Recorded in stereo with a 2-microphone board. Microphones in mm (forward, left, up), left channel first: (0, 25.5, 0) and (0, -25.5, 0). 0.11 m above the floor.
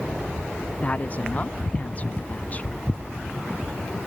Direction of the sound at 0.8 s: 30° left (ahead or behind).